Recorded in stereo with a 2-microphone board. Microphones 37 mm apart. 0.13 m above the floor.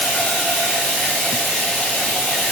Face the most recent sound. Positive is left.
turn(degrees=60)  # may be behind; listen again after turning